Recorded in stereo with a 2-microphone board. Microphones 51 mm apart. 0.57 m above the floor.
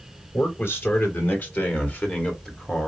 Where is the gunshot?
No gunshot in this recording.